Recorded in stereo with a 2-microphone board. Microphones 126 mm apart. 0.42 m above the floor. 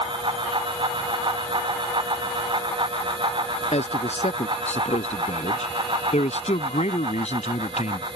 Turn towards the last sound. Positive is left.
turn(degrees=65)  # may be behind; listen again after turning